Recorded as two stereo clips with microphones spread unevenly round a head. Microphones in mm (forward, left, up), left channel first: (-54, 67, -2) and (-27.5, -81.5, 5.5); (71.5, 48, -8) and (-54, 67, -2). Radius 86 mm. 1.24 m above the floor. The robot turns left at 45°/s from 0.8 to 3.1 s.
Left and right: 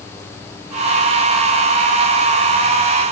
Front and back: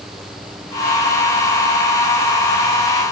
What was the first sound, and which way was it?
Only background noise.